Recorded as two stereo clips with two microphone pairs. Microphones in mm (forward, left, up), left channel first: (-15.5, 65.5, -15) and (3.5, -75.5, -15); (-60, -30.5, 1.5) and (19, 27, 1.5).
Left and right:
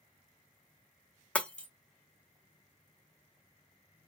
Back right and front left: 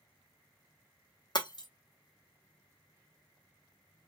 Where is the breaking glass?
Straight behind, 0.5 m.